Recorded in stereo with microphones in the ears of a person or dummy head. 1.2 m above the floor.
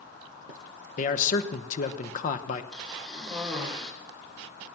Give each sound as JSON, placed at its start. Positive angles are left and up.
{"t": 1.0, "sound": "a man speaking", "side_deg": 45, "distance_m": 1.1}
{"t": 2.7, "sound": "a cough", "side_deg": 0, "distance_m": 3.5}